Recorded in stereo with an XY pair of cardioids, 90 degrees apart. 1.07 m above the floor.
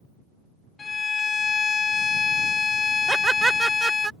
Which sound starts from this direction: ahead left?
A violin, at 0.8 s.